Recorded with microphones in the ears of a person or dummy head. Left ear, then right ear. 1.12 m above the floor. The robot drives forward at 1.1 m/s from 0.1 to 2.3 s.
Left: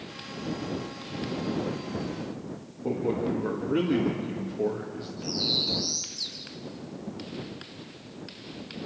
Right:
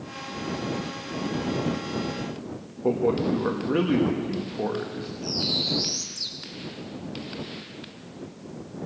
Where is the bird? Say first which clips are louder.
Right 1 dB; 40° right (ahead or behind), 3 m.